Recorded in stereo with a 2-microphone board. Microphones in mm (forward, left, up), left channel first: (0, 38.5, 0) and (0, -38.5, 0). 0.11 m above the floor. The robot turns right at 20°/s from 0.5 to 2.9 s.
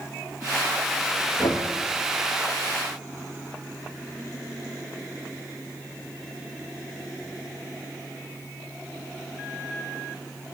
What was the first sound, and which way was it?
Knocking, 40° left (ahead or behind).